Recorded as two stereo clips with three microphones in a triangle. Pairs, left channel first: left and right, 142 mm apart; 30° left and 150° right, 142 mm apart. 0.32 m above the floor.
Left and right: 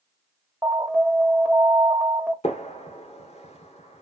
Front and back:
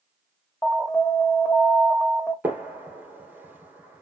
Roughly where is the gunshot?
Behind left.